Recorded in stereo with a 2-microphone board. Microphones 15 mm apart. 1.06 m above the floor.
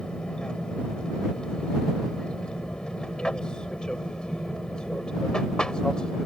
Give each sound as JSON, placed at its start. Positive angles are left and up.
{"t": 0.0, "sound": "an aircraft", "side_deg": 55}